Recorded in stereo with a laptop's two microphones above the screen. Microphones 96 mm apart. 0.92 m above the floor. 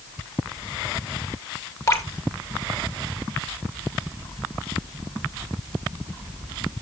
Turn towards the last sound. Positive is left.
turn(degrees=30)  # may be behind; listen again after turning